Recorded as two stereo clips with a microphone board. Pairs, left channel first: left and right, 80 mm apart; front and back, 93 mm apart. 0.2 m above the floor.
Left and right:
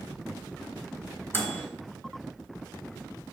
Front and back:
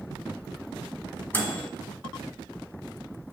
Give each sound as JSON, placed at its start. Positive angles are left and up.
{"t": 1.3, "sound": "a microwave", "azimuth_deg": 55, "distance_m": 1.3}